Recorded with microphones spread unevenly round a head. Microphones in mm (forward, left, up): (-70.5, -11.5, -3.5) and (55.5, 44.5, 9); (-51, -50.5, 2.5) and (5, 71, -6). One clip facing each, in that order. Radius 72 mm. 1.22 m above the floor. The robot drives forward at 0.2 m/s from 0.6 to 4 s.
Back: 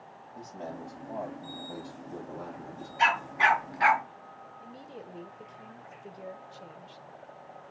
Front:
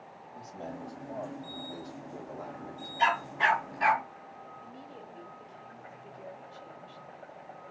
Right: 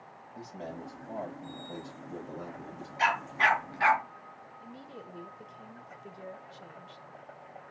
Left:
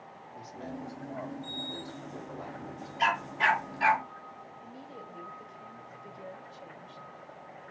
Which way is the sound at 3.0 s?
125° right.